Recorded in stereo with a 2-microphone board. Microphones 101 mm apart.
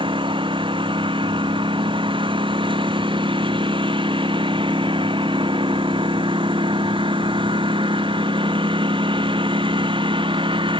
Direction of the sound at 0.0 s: 55° right (ahead or behind).